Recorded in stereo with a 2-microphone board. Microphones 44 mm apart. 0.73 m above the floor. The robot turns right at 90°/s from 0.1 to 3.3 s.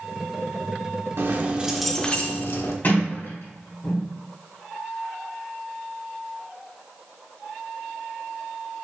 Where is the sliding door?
35° left (ahead or behind), 4 m; by 4.1 s 80° left, 4 m.